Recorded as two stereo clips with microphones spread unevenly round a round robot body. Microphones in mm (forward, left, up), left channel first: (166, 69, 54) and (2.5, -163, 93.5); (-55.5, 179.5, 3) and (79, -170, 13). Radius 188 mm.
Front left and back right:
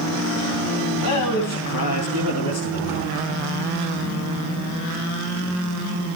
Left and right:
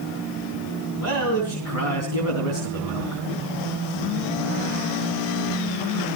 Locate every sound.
1.0 s a man speaking: 65° left, 4 m